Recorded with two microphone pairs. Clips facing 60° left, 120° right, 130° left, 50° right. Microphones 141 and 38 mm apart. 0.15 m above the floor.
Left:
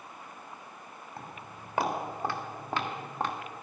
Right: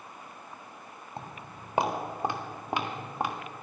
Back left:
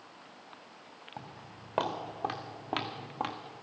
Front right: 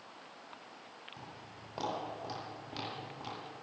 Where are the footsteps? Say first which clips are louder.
Right 3 dB, back left 3 dB; straight behind, 3 m; by 3.4 s 160° left, 2 m.